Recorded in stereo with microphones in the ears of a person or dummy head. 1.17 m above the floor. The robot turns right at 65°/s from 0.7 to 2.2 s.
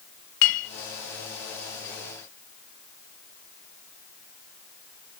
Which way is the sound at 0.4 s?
75° left (ahead or behind).